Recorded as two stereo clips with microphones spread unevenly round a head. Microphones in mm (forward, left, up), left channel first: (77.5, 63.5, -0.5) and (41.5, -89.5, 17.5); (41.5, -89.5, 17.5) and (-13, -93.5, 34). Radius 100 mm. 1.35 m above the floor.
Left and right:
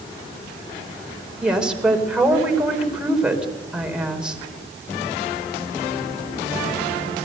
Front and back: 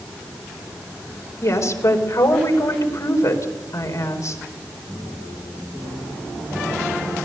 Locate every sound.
1.4 s a woman speaking: 20° right, 4.5 m